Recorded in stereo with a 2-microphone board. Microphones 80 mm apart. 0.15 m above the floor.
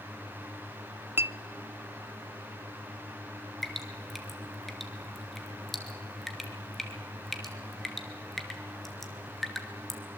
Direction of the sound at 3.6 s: Centre (ahead or behind).